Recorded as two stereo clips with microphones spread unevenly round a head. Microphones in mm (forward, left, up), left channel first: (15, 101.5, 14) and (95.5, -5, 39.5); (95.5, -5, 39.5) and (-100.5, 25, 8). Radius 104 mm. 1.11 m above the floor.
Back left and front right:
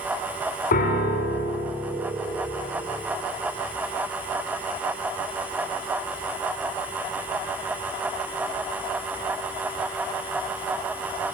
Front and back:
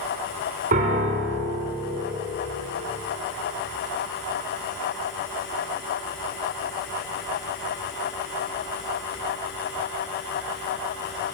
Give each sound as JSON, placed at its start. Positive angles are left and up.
{"t": 0.7, "sound": "a piano", "azimuth_deg": 120, "distance_m": 2.5}